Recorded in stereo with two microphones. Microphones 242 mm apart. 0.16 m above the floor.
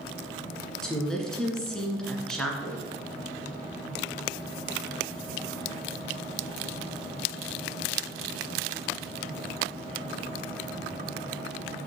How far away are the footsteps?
About 4 m.